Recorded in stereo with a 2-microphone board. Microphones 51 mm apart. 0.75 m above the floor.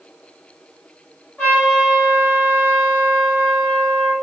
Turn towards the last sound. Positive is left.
turn(degrees=25)  # may be behind; listen again after turning